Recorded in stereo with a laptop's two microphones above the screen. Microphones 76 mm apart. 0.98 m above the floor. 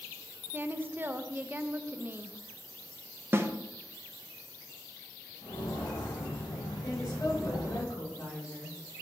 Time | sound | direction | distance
0.5 | a woman speaking | 25° right (ahead or behind) | 0.6 m
3.3 | a snare drum | 30° right (ahead or behind) | 0.8 m
5.4 | footsteps | 75° left (ahead or behind) | 4 m
6.8 | a woman speaking | 50° left (ahead or behind) | 3 m